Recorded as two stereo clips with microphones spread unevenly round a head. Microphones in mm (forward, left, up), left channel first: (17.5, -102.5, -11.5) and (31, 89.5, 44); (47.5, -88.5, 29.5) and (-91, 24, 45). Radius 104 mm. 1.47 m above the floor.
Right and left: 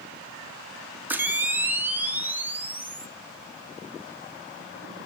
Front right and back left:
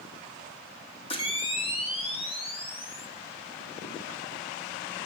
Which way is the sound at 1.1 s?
25° left.